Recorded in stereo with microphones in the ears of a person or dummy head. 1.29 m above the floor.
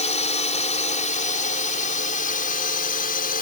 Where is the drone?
35° left (ahead or behind); by 3.4 s 45° left (ahead or behind).